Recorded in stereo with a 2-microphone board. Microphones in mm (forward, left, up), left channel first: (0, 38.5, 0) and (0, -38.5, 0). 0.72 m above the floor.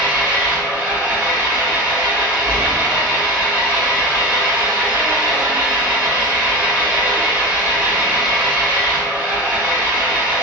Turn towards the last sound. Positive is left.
turn(degrees=-25)  # may be behind; listen again after turning